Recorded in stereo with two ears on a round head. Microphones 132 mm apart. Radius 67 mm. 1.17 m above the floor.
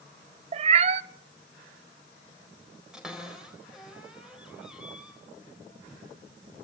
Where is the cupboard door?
5° right (ahead or behind), 4.5 m.